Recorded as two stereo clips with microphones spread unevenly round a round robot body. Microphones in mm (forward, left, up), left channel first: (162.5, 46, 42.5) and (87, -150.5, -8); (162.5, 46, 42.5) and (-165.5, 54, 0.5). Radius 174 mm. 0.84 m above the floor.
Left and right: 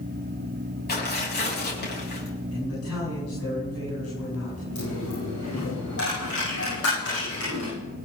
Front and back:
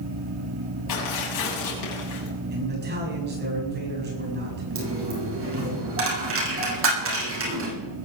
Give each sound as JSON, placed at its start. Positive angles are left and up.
{"t": 0.9, "sound": "tearing paper", "azimuth_deg": 25, "distance_m": 7.0}
{"t": 2.5, "sound": "a man speaking", "azimuth_deg": 120, "distance_m": 9.0}
{"t": 4.8, "sound": "a dropped coin", "azimuth_deg": 125, "distance_m": 7.5}